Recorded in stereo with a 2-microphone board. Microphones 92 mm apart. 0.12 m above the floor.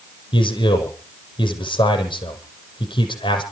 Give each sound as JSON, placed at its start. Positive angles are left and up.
{"t": 0.3, "sound": "a man speaking", "side_deg": 60, "distance_m": 5.5}